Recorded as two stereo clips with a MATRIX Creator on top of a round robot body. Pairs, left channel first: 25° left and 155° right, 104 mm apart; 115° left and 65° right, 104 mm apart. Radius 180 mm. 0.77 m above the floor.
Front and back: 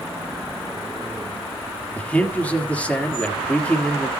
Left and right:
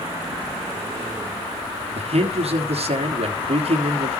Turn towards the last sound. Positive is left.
turn(degrees=-55)